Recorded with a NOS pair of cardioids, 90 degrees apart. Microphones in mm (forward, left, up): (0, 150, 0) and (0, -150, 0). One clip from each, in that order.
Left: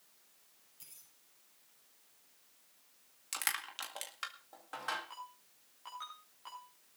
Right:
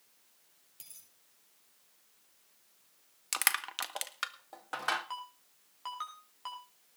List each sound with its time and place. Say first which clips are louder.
0.8 s a dropped coin: right 4 dB; 60° right, 9 m
3.3 s crushing: right 6 dB; 45° right, 1.5 m
5.1 s a ringtone: right 6 dB; 60° right, 7 m